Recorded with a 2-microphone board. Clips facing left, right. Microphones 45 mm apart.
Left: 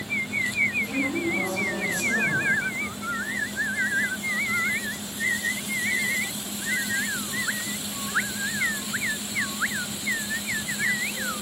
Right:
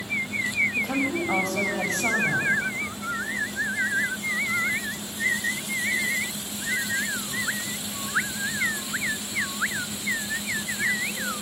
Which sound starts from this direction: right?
A woman speaking, at 0.8 s.